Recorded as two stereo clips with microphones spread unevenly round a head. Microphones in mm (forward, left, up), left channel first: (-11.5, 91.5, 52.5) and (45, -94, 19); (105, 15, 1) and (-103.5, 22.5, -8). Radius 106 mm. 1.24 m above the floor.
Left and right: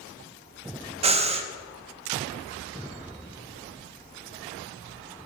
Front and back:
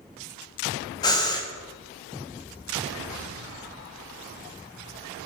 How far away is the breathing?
About 0.6 m.